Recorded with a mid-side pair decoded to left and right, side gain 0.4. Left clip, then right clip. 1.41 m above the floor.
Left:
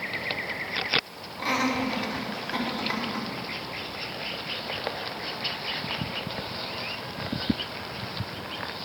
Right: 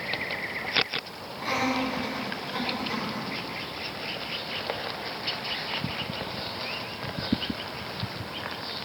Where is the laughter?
60° left, 3 m; by 3.3 s 75° left, 4.5 m.